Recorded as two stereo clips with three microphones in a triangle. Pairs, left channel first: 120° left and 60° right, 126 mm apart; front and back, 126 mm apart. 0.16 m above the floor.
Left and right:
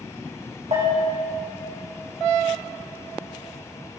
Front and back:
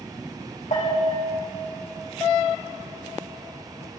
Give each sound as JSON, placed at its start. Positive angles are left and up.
{"t": 0.7, "sound": "a bell", "azimuth_deg": -25, "distance_m": 4.0}